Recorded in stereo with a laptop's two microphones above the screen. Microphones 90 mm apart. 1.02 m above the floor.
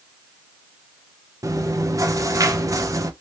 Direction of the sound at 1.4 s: 35° right (ahead or behind).